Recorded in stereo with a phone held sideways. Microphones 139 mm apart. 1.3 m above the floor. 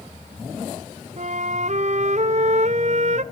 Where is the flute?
55° right (ahead or behind), 0.8 m.